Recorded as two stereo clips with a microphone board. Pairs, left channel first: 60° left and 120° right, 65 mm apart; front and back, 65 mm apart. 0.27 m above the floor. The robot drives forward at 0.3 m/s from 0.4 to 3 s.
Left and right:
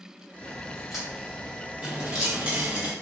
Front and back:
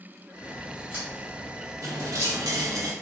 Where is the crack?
155° left, 1.2 m; by 2.8 s 170° left, 1.6 m.